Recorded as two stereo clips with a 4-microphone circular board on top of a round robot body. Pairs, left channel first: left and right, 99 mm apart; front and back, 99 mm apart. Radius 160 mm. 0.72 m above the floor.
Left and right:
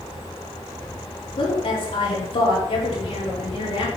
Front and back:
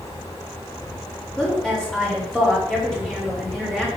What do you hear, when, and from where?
1.4 s a woman speaking: 85° left, 4 m